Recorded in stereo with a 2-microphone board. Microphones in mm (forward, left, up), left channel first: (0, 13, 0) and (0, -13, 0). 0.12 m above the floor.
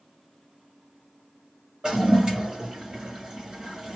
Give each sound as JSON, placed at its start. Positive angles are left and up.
{"t": 1.8, "sound": "a toilet flushing", "side_deg": -25, "distance_m": 1.6}